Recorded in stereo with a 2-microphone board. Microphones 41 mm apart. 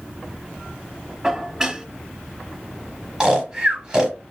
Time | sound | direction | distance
1.2 | dishes clattering | 15° right (ahead or behind) | 1.2 m
3.2 | snoring | 15° right (ahead or behind) | 1.1 m